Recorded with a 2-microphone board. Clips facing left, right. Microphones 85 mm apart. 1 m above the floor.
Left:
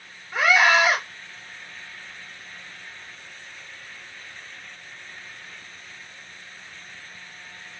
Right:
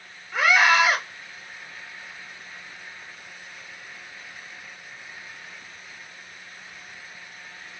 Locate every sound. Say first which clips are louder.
0.3 s a scream: even; 15° left (ahead or behind), 2.5 m